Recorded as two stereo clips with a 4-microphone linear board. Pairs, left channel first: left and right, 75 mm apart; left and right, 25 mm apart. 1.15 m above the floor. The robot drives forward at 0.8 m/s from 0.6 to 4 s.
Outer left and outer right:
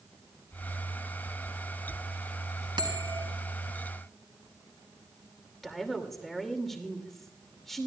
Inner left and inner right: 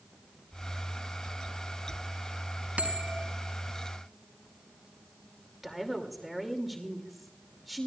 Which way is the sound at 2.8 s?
70° right (ahead or behind).